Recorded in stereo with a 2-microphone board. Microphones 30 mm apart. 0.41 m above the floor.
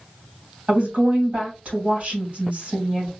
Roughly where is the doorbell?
I don't hear a doorbell.